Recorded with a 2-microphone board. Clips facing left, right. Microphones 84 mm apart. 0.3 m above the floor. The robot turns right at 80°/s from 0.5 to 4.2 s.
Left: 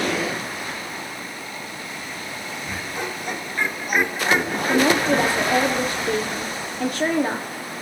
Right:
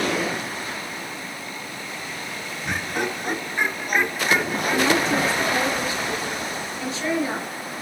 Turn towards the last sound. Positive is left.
turn(degrees=55)  # may be behind; listen again after turning